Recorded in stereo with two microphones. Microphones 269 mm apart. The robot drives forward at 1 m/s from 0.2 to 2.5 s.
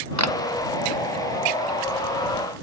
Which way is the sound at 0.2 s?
75° right (ahead or behind).